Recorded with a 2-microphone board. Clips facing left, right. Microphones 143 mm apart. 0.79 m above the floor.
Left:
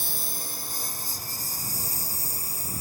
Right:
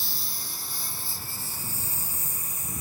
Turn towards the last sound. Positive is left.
turn(degrees=35)  # may be behind; listen again after turning